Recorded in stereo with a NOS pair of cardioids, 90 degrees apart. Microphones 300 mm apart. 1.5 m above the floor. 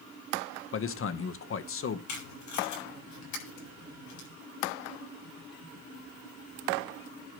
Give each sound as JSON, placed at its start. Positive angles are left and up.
{"t": 0.7, "sound": "a man speaking", "azimuth_deg": 45, "distance_m": 1.4}
{"t": 2.1, "sound": "tape being pulled", "azimuth_deg": 70, "distance_m": 8.0}